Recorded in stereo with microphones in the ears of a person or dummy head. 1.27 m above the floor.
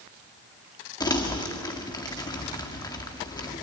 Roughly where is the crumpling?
Left.